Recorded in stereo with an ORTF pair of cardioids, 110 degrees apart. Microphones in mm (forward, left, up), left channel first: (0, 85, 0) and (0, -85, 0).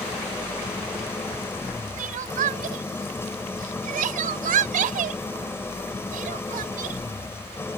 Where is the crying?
55° right.